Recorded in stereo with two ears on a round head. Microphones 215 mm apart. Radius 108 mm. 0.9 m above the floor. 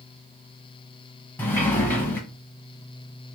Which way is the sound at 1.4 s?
10° left (ahead or behind).